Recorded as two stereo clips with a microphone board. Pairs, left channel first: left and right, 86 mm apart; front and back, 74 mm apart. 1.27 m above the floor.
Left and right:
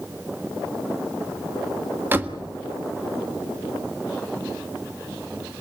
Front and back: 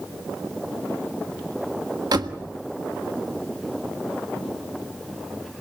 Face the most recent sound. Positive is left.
turn(degrees=-155)